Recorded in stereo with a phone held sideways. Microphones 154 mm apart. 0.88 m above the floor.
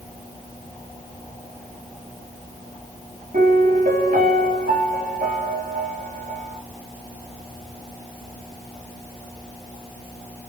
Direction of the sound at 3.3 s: 65° right (ahead or behind).